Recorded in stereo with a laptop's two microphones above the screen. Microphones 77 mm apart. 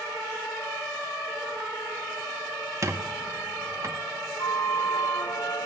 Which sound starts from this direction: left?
A flute, at 4.4 s.